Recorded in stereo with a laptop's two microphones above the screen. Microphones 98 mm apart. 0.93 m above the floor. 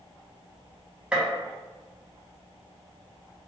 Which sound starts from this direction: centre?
A gunshot, at 1.1 s.